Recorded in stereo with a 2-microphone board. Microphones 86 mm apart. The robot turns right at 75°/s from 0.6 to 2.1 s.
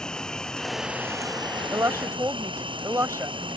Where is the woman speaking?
40° right (ahead or behind); by 3.6 s 35° right (ahead or behind).